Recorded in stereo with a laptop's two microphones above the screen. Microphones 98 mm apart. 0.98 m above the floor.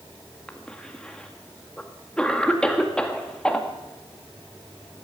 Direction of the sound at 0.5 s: 10° left (ahead or behind).